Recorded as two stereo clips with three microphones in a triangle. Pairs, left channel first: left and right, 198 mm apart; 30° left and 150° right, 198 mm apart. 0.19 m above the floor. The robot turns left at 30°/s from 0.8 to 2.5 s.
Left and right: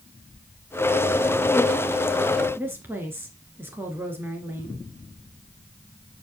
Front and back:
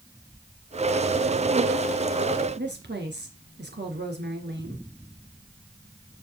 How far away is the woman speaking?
About 2.5 m.